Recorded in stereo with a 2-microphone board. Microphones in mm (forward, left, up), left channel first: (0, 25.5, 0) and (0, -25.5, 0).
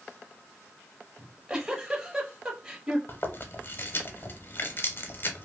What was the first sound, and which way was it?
A giggle, 15° right (ahead or behind).